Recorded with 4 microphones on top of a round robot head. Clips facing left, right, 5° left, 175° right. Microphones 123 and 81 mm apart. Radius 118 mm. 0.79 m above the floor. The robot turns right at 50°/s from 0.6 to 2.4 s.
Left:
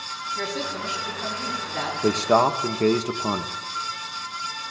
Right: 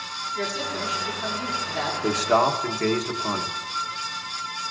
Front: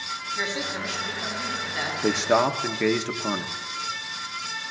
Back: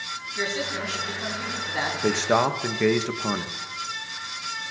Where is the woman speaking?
70° left, 5 m; by 1.9 s 135° left, 5 m.